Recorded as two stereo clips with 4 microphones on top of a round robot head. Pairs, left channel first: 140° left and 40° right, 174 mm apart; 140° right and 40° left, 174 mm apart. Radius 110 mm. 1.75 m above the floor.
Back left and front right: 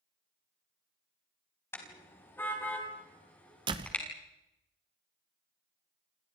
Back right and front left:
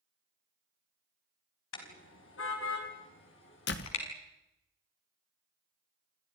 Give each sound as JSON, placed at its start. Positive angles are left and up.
{"t": 1.7, "sound": "a car horn", "azimuth_deg": -145, "distance_m": 4.5}
{"t": 3.7, "sound": "a door slam", "azimuth_deg": -105, "distance_m": 1.3}